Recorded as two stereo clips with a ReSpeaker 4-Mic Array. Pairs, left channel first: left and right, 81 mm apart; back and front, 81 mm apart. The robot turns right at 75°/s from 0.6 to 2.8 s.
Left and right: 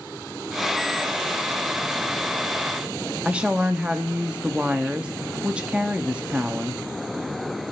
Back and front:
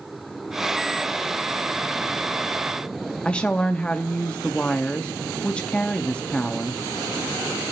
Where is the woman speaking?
135° right, 0.8 m.